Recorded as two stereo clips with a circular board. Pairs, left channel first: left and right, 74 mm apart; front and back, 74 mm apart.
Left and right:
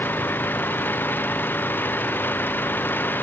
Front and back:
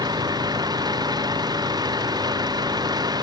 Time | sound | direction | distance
0.0 | an engine running | 155° left | ?